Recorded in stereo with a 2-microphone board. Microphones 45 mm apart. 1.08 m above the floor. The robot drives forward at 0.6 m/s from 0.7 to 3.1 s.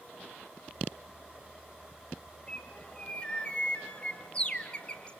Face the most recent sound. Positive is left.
turn(degrees=20)  # may be behind; listen again after turning